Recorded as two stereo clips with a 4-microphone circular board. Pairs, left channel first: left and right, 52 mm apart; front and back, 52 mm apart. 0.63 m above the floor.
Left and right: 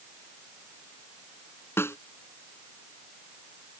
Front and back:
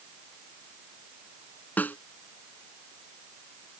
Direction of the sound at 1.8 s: 55° left.